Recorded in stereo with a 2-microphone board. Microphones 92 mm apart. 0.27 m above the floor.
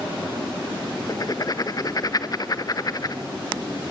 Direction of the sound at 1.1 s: 45° left (ahead or behind).